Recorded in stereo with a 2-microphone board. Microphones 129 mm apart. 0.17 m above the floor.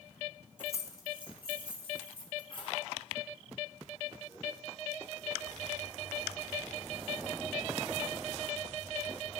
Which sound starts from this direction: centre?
Keys jangling, at 0.6 s.